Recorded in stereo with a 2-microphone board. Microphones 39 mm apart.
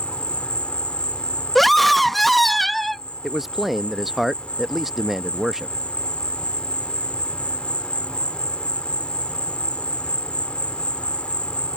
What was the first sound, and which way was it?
An insect, 30° left (ahead or behind).